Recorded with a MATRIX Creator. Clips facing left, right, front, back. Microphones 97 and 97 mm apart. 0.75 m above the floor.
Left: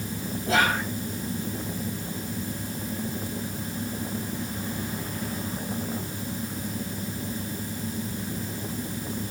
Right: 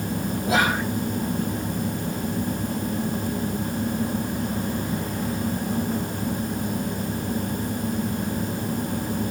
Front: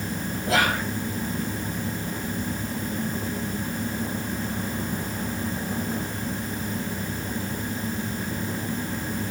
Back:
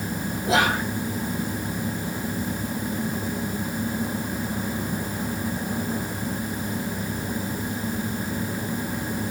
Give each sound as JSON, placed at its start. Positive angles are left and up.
{"t": 0.5, "sound": "whispering", "azimuth_deg": -145, "distance_m": 0.6}